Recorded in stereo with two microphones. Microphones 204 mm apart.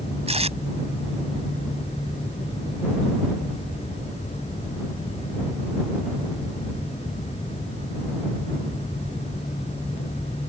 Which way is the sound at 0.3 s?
30° right (ahead or behind).